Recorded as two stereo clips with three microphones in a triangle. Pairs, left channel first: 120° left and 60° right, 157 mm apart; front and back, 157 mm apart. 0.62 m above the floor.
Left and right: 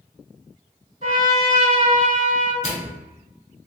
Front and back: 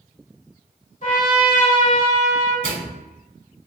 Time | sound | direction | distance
1.0 | a trumpet | 25° right | 1.3 m
2.6 | a microwave | 75° left | 1.1 m